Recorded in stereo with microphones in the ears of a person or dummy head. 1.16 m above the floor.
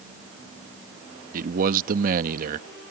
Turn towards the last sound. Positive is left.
turn(degrees=-50)  # may be behind; listen again after turning